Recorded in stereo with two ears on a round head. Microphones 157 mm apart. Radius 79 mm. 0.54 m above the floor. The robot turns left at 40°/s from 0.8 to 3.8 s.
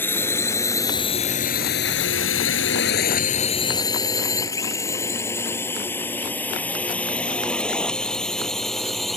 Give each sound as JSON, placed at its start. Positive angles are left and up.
{"t": 0.0, "sound": "a drone", "side_deg": 10}